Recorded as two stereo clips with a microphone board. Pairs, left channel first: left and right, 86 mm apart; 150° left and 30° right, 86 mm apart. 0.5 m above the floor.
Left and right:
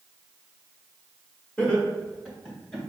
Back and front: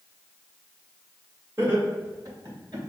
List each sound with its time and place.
1.6 s laughter: 20° left, 1.7 m; by 2.8 s 10° left, 3.5 m